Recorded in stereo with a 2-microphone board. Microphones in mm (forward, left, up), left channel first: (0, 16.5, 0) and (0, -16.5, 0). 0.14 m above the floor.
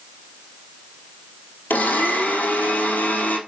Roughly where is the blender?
Left.